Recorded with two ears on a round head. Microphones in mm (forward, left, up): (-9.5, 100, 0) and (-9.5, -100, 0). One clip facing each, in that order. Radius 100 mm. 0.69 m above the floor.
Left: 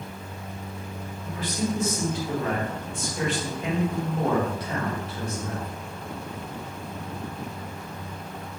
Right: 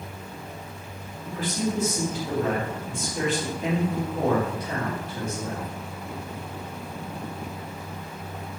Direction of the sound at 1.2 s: 40° right (ahead or behind).